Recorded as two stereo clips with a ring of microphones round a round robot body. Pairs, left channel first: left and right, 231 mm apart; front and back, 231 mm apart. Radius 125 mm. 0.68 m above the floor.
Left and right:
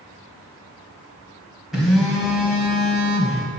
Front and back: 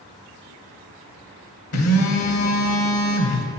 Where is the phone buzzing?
Straight ahead, 0.7 m.